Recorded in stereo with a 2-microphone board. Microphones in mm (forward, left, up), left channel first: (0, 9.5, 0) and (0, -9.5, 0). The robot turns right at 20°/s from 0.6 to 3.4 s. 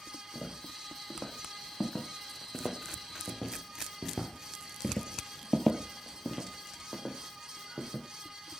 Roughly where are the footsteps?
Left.